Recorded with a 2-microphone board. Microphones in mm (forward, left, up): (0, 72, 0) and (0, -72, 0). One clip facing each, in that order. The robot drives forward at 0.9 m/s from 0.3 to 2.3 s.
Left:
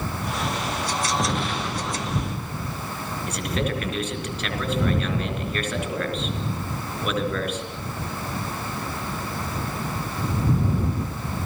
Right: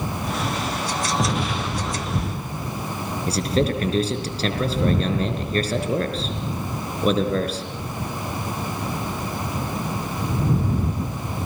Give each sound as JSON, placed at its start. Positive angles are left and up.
{"t": 1.2, "sound": "an explosion", "side_deg": -5, "distance_m": 5.0}
{"t": 3.3, "sound": "a man speaking", "side_deg": -35, "distance_m": 4.0}